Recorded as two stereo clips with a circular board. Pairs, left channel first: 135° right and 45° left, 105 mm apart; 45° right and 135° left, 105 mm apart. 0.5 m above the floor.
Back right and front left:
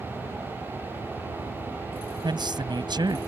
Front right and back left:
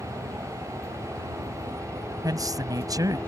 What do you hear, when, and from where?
0.0 s a helicopter: 100° right
2.2 s a man speaking: 85° left